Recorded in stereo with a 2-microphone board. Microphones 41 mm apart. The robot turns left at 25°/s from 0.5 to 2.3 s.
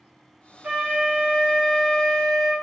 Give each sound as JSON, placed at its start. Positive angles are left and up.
{"t": 0.6, "sound": "a flute", "azimuth_deg": -140, "distance_m": 1.0}